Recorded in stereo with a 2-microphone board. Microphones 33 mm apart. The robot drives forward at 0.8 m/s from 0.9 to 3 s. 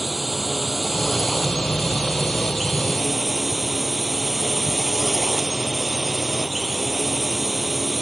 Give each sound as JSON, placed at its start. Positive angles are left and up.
{"t": 0.0, "sound": "a drone", "side_deg": -5}